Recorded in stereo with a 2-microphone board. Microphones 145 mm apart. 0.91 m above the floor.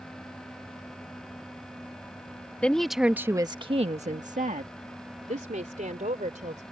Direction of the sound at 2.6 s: 10° left (ahead or behind).